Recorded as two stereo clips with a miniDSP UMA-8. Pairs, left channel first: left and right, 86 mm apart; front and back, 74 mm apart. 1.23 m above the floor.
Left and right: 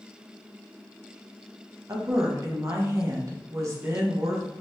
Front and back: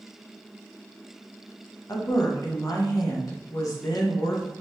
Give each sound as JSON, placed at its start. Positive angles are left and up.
{"t": 1.9, "sound": "a woman speaking", "azimuth_deg": -40, "distance_m": 1.2}